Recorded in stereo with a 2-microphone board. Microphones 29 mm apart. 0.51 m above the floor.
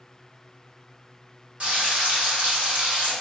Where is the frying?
45° right (ahead or behind), 1.7 m.